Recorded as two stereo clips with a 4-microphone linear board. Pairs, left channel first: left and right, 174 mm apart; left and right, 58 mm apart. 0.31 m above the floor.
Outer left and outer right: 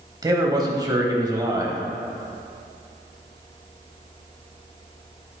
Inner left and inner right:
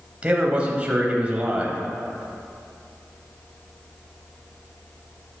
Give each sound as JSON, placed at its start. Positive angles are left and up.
{"t": 0.2, "sound": "a man speaking", "side_deg": -25, "distance_m": 1.4}